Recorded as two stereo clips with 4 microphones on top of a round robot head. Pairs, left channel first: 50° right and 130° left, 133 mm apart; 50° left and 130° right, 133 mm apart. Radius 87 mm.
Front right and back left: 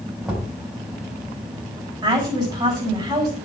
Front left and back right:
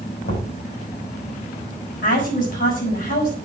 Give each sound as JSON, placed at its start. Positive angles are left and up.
{"t": 0.2, "sound": "knocking", "azimuth_deg": 50, "distance_m": 6.0}
{"t": 2.0, "sound": "a woman speaking", "azimuth_deg": 65, "distance_m": 7.0}